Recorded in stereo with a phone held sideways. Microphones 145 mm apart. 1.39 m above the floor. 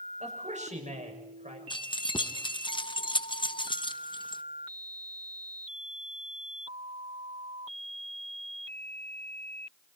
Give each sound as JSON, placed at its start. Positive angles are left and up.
{"t": 0.2, "sound": "a man speaking", "side_deg": -55, "distance_m": 6.5}
{"t": 1.7, "sound": "keys jangling", "side_deg": 35, "distance_m": 0.9}